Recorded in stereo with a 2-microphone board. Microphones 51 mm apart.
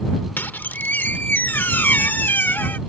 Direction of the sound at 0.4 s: 45° left (ahead or behind).